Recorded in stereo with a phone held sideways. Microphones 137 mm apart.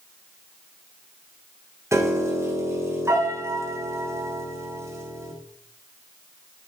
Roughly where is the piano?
Right.